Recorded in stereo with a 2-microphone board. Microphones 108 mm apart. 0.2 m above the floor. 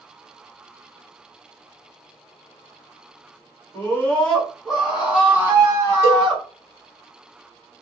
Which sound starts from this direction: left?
A scream, at 3.7 s.